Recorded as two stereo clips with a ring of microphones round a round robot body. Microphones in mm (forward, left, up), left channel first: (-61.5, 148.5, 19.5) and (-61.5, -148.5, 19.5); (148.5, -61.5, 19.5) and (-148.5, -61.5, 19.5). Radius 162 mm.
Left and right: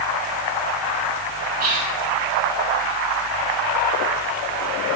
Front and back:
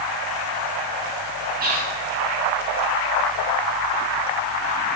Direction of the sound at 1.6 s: 135° right.